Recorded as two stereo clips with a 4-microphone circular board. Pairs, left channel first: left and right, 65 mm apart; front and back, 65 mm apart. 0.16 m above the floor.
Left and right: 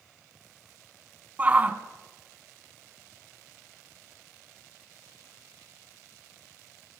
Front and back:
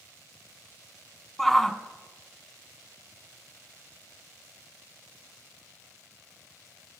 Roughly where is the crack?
No crack in this recording.